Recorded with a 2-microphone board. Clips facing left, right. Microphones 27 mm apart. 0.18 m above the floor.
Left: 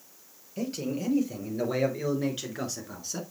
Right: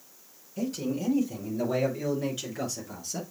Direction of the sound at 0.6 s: 30° left (ahead or behind).